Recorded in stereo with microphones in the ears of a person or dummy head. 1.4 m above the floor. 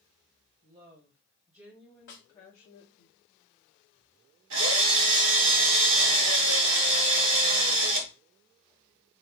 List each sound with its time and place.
0.6 s a woman speaking: 35° right (ahead or behind), 1.3 m; by 3.1 s 65° left (ahead or behind), 0.8 m
2.1 s a snare drum: 45° left (ahead or behind), 1.6 m
4.5 s a drill: 70° right (ahead or behind), 1.2 m